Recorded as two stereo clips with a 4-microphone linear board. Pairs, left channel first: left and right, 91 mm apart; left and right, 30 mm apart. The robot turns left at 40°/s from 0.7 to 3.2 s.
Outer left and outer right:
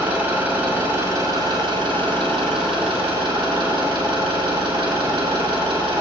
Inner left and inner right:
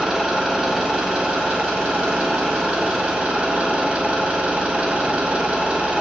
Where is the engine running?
20° right, 3.5 m; by 6.0 s 120° right, 3.5 m.